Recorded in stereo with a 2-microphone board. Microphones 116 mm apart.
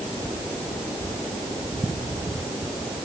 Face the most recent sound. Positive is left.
No sound to turn to.